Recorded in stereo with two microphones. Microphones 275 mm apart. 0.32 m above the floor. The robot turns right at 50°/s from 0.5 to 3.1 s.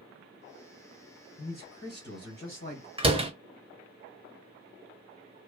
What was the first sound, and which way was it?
A man speaking, 60° left.